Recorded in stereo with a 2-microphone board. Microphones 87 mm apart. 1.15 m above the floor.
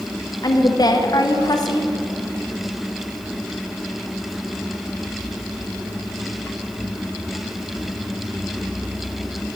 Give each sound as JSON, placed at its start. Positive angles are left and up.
{"t": 0.4, "sound": "a woman speaking", "side_deg": 55, "distance_m": 0.9}